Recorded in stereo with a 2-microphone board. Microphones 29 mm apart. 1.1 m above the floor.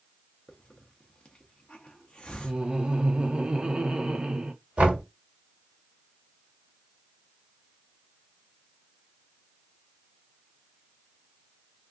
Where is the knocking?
60° right (ahead or behind), 1.5 m.